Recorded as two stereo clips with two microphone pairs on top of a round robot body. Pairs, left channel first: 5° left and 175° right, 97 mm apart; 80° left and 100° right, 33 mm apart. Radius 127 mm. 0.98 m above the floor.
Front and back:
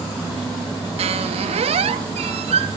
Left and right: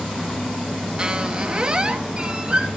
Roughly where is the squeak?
Behind.